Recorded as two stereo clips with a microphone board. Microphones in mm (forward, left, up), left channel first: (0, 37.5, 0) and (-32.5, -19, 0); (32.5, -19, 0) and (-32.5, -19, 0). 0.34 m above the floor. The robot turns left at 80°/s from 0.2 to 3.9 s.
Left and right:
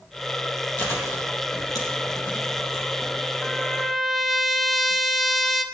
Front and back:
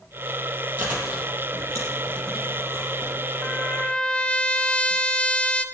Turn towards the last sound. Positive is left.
turn(degrees=-30)